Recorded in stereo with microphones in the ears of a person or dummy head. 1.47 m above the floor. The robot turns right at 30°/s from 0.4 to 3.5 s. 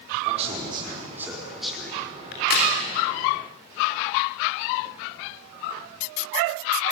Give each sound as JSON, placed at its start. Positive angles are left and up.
{"t": 0.2, "sound": "a man speaking", "side_deg": -40, "distance_m": 4.5}
{"t": 2.3, "sound": "a crack", "side_deg": 55, "distance_m": 3.5}